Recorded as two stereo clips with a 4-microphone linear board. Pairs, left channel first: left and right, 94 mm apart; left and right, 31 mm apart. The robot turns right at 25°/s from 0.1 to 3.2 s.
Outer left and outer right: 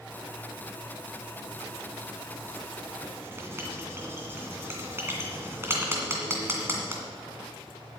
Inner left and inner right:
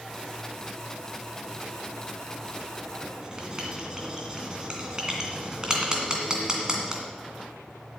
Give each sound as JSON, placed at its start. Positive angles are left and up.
{"t": 3.0, "sound": "writing", "side_deg": -25, "distance_m": 2.0}